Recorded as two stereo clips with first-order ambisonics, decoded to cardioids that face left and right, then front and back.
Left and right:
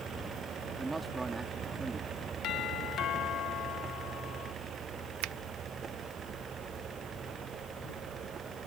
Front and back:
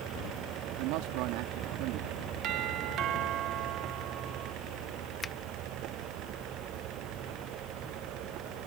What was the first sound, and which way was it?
A man speaking, 175° right.